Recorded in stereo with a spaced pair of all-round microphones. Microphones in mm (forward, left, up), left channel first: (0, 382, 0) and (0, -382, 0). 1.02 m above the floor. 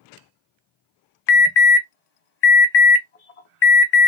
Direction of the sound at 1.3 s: 55° left (ahead or behind).